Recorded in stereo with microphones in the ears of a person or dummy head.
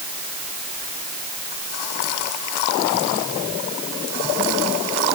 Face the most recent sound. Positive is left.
No sound to turn to.